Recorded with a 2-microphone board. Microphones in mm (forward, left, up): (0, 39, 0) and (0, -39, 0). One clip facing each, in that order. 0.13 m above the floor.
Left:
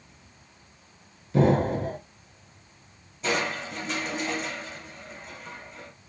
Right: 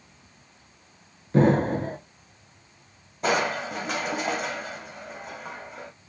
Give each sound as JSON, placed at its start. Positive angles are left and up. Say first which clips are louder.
{"t": 1.3, "sound": "an explosion", "louder": "right 2 dB", "side_deg": -45, "distance_m": 1.2}
{"t": 3.2, "sound": "crushing", "louder": "right 4 dB", "side_deg": -65, "distance_m": 1.3}